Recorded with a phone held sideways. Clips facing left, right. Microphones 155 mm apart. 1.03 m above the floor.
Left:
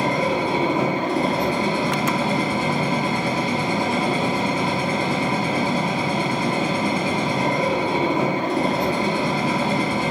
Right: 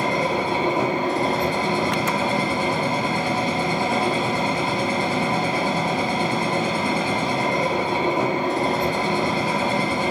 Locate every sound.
0.0 s a machine running: 65° left (ahead or behind), 1.7 m